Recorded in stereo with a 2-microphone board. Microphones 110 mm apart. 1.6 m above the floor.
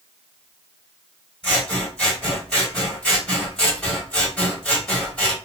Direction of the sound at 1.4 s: 10° left (ahead or behind).